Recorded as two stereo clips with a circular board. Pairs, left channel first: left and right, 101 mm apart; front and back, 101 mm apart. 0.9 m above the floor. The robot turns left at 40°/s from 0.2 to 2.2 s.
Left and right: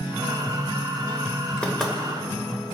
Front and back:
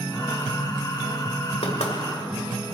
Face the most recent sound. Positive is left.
turn(degrees=-10)